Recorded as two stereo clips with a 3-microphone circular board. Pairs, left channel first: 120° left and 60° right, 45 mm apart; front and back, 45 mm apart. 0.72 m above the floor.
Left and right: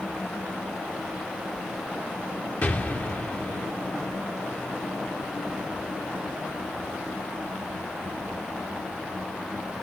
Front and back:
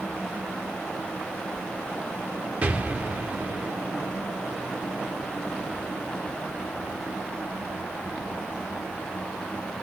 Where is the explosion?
135° left, 0.8 m.